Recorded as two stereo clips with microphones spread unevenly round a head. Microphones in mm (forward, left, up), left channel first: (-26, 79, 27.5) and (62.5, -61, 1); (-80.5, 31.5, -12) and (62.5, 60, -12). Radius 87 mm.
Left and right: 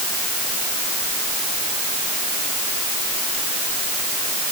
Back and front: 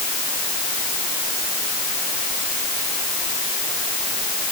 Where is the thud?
No thud in this recording.